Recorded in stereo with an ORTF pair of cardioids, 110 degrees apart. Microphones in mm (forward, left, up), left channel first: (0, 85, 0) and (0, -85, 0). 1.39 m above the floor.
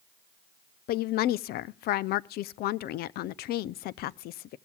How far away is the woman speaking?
About 0.5 m.